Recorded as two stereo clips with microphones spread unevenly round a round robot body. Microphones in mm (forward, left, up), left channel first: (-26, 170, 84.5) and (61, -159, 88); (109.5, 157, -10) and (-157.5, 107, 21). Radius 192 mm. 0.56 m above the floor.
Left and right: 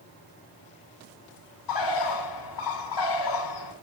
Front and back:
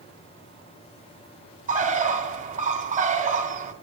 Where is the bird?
130° left, 3.5 m.